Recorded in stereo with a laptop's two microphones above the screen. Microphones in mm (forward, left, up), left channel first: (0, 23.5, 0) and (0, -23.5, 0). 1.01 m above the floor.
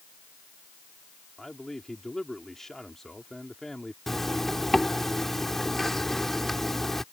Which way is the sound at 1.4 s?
5° left (ahead or behind).